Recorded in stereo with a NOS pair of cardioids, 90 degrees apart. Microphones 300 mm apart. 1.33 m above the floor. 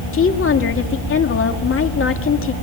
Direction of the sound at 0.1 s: 45° left.